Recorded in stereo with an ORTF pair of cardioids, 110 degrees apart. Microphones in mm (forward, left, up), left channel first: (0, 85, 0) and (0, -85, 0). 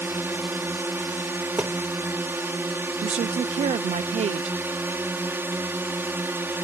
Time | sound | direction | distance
0.0 | a drone | 15° right | ?
1.6 | a thud | 10° right | ?
3.0 | a woman speaking | 40° right | ?